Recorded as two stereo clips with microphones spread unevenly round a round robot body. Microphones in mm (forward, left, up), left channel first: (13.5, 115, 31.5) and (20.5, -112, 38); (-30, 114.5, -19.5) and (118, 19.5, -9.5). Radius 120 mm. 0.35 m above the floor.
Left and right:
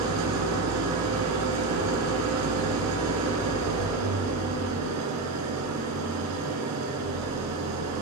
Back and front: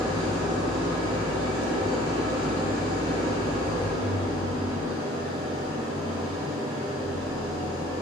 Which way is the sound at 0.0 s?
105° right.